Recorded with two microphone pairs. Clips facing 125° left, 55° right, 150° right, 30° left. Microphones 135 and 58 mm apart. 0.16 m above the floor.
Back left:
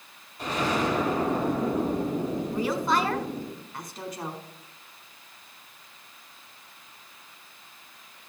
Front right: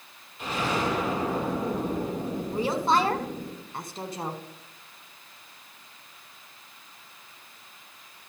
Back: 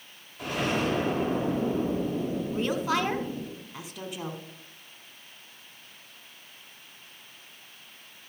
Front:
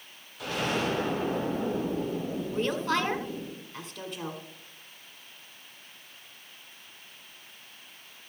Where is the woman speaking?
80° right, 1.2 m.